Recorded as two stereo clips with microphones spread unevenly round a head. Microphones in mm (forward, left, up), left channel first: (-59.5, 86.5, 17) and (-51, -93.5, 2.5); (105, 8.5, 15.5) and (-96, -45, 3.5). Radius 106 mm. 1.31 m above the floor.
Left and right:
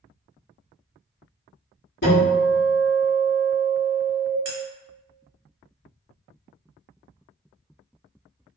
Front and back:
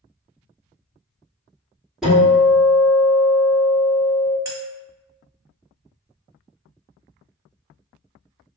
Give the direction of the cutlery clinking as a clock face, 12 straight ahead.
3 o'clock.